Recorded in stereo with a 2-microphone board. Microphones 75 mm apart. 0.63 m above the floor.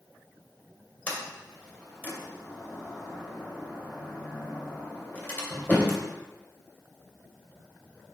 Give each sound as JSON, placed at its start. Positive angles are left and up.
{"t": 1.1, "sound": "a sliding door", "side_deg": 20, "distance_m": 2.5}